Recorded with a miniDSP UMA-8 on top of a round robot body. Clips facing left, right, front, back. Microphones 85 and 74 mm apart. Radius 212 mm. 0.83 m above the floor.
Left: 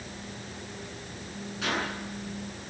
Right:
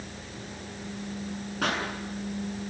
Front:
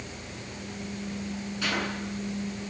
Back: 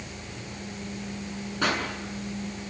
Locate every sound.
1.6 s a pop: 135° right, 8.5 m